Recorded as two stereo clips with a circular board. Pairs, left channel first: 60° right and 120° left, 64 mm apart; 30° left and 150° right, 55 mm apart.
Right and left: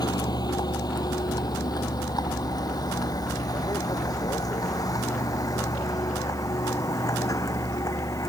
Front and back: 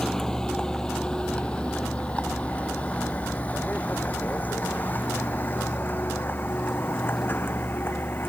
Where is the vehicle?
55° right; by 8.3 s 25° right.